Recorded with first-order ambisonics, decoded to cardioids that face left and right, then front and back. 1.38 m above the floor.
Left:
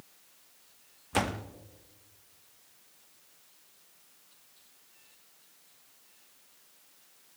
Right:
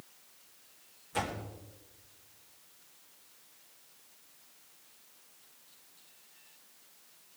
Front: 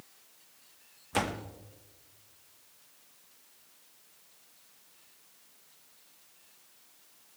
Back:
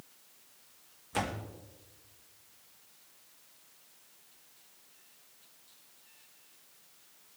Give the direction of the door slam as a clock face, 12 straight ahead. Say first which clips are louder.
Left 5 dB, front 3 dB; 10 o'clock.